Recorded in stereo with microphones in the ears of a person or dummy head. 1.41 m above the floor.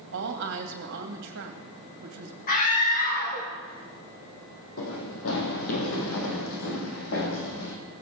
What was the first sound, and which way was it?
A woman speaking, 65° right (ahead or behind).